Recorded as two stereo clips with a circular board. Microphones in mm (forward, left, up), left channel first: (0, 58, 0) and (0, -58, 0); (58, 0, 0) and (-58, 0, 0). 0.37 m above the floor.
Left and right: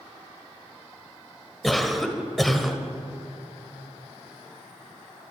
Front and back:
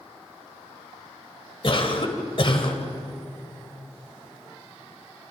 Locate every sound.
1.6 s a cough: straight ahead, 2.0 m